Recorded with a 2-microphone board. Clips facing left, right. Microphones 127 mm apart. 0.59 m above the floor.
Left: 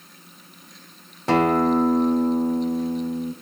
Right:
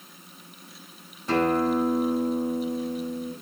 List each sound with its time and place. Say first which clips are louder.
1.3 s a guitar: left 4 dB; 75° left (ahead or behind), 1.1 m